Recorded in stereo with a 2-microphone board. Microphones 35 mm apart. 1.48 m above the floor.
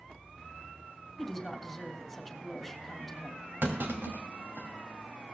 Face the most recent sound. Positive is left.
turn(degrees=-85)